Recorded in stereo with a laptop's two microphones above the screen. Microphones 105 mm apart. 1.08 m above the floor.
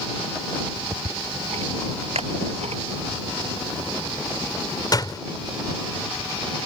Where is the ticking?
80° right.